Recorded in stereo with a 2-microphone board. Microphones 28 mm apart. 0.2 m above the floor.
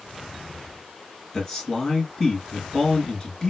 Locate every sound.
1.3 s a man speaking: 20° left (ahead or behind), 2 m